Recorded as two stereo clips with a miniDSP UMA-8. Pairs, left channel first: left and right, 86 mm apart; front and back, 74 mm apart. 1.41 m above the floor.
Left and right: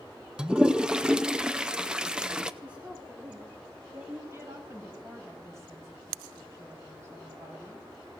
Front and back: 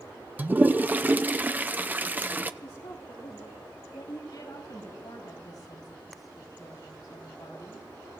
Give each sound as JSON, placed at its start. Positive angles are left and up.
{"t": 0.4, "sound": "a toilet flushing", "azimuth_deg": -160, "distance_m": 0.5}
{"t": 2.6, "sound": "a woman speaking", "azimuth_deg": -20, "distance_m": 2.0}
{"t": 4.3, "sound": "a woman speaking", "azimuth_deg": -35, "distance_m": 4.5}